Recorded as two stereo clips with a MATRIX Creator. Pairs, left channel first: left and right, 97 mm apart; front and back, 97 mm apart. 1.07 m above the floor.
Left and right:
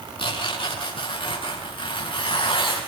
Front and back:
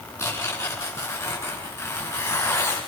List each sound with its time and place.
0.2 s tearing paper: 60° left, 9 m